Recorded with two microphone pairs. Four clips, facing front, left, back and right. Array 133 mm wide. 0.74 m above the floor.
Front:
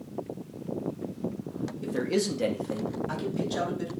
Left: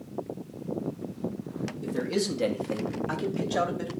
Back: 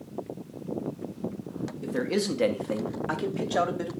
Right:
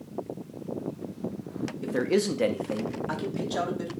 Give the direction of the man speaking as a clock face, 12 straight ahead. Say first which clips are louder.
Right 4 dB, even; 3 o'clock.